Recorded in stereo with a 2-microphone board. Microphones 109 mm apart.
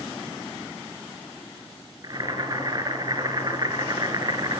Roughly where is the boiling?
Right.